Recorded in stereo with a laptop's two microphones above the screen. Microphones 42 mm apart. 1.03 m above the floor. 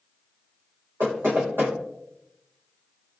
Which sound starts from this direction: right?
Knocking, at 1.0 s.